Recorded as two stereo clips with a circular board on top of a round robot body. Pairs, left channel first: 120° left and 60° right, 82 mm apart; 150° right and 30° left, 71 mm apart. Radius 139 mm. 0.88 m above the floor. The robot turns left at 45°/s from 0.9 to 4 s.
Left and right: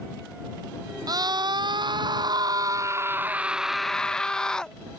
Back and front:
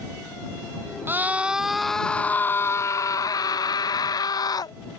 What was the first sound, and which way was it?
A scream, 25° right.